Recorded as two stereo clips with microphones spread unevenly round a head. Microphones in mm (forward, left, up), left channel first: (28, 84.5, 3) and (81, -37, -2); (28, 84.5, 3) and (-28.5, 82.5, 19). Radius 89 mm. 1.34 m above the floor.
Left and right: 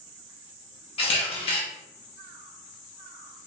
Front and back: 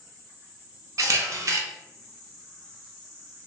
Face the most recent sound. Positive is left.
turn(degrees=155)